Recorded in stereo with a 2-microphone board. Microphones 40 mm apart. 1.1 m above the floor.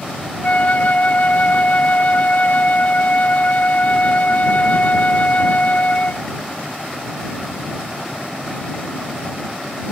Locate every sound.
0.4 s a flute: 50° left (ahead or behind)